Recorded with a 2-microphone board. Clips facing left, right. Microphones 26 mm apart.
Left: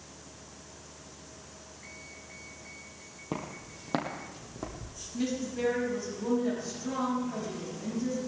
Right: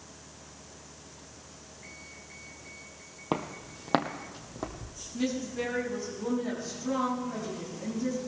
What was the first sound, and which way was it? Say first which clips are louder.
Footsteps: right 5 dB; 45° right (ahead or behind).